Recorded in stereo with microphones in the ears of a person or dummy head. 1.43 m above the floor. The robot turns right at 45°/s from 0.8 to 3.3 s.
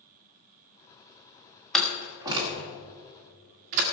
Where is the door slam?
5° left (ahead or behind), 1.3 m; by 3.8 s 50° right (ahead or behind), 1.3 m.